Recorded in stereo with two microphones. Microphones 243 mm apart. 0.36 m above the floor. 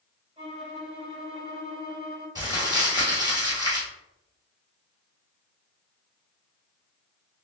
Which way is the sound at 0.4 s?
25° right (ahead or behind).